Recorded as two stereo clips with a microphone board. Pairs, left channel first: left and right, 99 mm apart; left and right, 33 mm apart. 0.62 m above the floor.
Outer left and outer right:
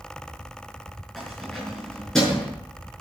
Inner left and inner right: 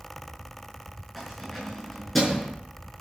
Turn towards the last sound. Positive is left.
turn(degrees=5)  # may be behind; listen again after turning